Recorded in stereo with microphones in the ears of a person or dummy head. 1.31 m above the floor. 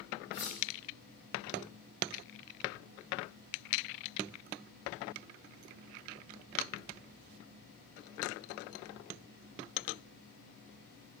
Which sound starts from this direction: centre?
Cutlery clinking, at 0.3 s.